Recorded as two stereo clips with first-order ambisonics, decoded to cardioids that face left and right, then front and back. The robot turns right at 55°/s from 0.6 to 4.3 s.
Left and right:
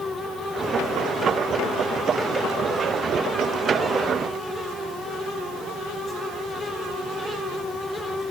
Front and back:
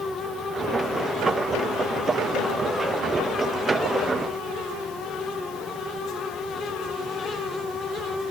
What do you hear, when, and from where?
Only background noise.